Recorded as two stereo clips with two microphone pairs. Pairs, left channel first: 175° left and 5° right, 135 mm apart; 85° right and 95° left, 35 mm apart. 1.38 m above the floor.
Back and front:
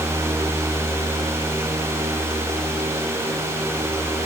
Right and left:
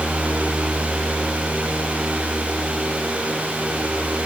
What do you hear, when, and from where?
Only background noise.